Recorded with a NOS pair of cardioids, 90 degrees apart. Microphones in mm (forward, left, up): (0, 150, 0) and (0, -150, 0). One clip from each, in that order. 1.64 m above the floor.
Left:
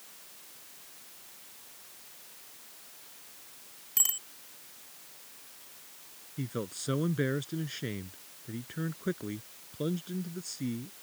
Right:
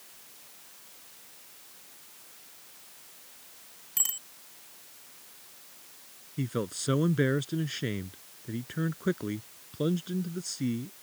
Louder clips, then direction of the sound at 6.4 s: Right 4 dB; 35° right.